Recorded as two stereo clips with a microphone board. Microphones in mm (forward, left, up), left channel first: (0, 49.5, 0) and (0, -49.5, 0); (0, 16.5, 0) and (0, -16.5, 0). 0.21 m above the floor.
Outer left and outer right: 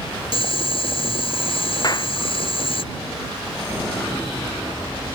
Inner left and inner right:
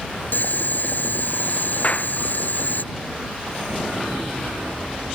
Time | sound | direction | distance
0.3 | boiling | 65° left (ahead or behind) | ?
1.8 | a clap | 40° left (ahead or behind) | ?